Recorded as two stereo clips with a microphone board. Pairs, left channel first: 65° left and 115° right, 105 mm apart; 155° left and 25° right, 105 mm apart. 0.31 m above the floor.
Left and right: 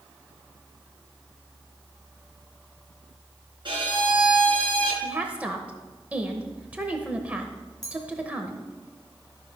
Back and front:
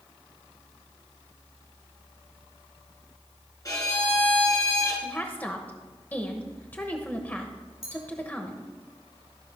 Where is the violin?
150° right, 2.5 m.